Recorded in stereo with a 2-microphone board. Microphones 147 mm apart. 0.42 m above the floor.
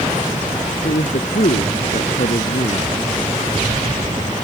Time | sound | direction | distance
0.8 | a man speaking | 80° left | ?